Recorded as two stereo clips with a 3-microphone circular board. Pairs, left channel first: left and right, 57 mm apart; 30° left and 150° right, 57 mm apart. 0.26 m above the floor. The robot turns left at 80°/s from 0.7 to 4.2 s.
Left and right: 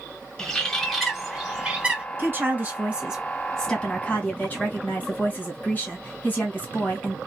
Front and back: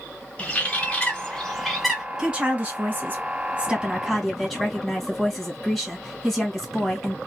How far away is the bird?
About 0.9 m.